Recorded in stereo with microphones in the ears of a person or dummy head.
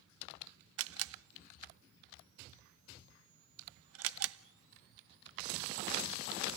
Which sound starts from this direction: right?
A camera shutter, at 0.8 s.